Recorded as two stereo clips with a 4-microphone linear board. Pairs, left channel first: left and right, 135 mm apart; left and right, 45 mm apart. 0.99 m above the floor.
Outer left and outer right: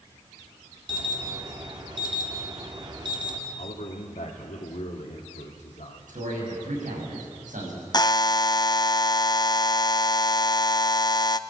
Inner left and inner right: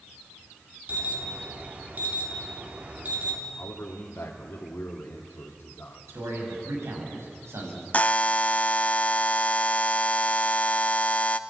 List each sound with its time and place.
0.9 s an alarm: 35° right (ahead or behind), 3 m
3.6 s a man speaking: 65° left (ahead or behind), 2 m
6.1 s a man speaking: 85° right, 7.5 m
7.9 s a buzzer: 30° left (ahead or behind), 0.6 m